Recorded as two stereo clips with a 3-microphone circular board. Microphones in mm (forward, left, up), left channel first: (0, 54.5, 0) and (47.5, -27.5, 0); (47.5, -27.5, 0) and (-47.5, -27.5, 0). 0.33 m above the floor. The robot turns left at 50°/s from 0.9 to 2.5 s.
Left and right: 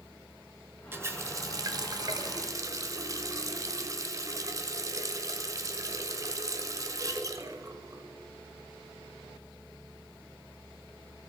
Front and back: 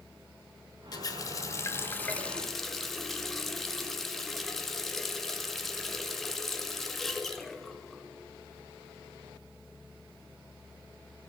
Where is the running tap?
5° right, 0.6 m; by 8.0 s 85° right, 0.6 m.